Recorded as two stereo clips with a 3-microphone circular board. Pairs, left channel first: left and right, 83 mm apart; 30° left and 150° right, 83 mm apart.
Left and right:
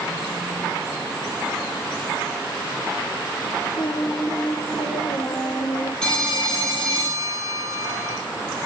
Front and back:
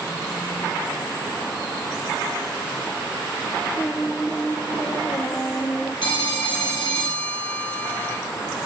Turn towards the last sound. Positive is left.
turn(degrees=10)